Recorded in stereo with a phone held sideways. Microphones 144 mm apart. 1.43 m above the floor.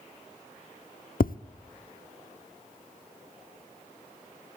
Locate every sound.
1.2 s tapping: 75° left (ahead or behind), 0.5 m